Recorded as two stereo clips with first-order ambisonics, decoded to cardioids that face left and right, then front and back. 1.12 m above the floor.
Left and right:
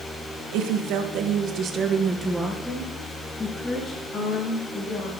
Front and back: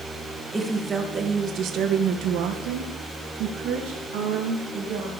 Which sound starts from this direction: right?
A woman speaking, at 0.5 s.